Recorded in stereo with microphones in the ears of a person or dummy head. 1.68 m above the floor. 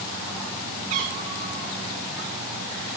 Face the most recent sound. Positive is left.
turn(degrees=-35)  # may be behind; listen again after turning